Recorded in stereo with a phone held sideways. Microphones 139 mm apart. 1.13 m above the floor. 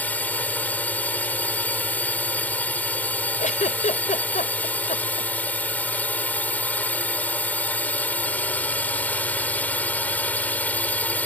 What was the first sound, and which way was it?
A drone, 10° left (ahead or behind).